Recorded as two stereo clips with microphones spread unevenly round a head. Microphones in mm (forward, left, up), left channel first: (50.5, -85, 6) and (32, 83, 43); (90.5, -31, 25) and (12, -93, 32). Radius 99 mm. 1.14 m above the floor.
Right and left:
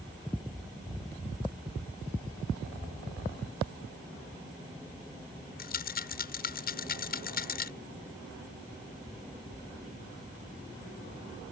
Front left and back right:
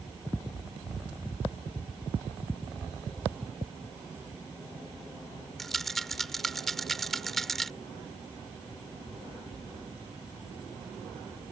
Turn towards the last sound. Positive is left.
turn(degrees=-50)